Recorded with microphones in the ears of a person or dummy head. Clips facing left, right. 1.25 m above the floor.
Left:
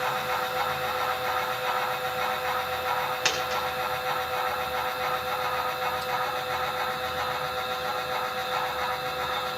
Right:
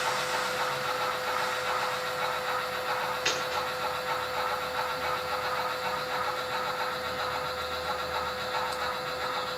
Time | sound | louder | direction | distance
0.0 | a fan | left 2 dB | 80° left | 8 m
3.2 | a dropped coin | left 2 dB | 85° left | 4.5 m